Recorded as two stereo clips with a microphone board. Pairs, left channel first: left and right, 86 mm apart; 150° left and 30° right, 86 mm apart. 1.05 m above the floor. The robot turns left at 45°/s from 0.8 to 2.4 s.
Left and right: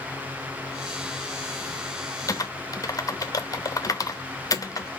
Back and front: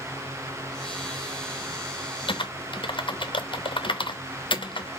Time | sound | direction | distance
2.3 | typing on a keyboard | 145° left | 0.6 m